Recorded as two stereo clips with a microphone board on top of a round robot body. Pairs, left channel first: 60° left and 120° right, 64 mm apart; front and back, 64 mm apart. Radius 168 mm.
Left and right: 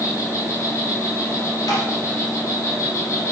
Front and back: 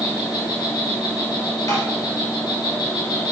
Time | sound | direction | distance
0.0 | an insect | 10° left | 1.6 m
1.7 | tapping | 35° left | 2 m